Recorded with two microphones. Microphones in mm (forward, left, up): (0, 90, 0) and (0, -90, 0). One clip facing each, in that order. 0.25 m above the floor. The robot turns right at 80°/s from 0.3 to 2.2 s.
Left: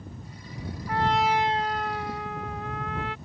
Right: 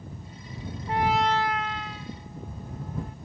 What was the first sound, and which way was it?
A trumpet, 25° right.